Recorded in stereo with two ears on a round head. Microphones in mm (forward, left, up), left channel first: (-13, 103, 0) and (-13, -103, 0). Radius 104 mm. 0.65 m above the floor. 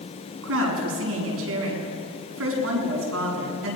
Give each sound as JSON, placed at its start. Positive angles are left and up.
{"t": 0.4, "sound": "a woman speaking", "side_deg": -65, "distance_m": 7.5}